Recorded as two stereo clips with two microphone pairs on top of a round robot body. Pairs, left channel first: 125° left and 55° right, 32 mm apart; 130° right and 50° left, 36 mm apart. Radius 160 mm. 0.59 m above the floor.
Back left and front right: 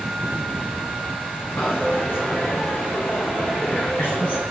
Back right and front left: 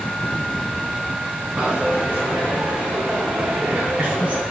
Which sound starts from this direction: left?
A dropped coin, at 1.6 s.